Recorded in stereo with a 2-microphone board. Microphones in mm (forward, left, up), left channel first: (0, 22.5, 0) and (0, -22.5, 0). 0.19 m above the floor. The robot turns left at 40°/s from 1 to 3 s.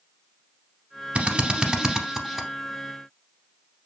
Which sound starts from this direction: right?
A drill, at 1.1 s.